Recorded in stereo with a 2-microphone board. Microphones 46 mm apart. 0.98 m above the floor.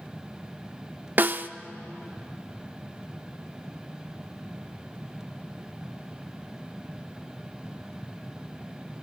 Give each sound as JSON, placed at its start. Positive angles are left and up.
{"t": 1.2, "sound": "a snare drum", "side_deg": -45, "distance_m": 0.7}